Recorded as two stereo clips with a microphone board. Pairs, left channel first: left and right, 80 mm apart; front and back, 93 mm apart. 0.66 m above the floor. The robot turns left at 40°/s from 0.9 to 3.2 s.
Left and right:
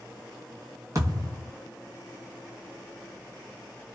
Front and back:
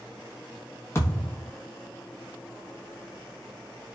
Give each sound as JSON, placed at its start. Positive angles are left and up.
{"t": 0.9, "sound": "a thud", "azimuth_deg": -55, "distance_m": 1.1}